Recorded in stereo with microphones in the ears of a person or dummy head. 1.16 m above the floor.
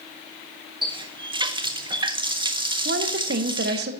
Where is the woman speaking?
50° right (ahead or behind), 0.9 m.